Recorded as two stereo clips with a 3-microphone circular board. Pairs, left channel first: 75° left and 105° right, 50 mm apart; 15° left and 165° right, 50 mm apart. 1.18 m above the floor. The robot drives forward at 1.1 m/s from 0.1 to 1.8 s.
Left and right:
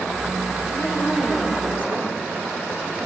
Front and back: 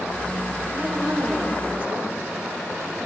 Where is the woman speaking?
105° left, 2.5 m; by 2.1 s 130° left, 3 m.